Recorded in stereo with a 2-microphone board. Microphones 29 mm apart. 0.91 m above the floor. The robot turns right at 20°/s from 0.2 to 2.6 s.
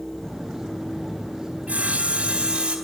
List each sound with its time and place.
1.7 s sawing: 55° right (ahead or behind), 4.5 m; by 2.8 s 40° right (ahead or behind), 4.5 m